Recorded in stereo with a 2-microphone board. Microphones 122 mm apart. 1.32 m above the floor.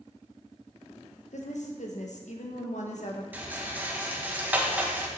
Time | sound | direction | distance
1.3 | a woman speaking | 75° left (ahead or behind) | 1.5 m
3.3 | a rattle | 15° right (ahead or behind) | 1.4 m